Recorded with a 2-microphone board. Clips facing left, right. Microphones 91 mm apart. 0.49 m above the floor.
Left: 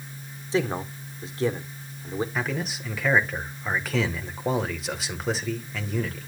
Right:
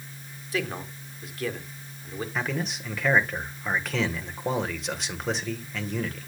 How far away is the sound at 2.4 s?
About 1.5 m.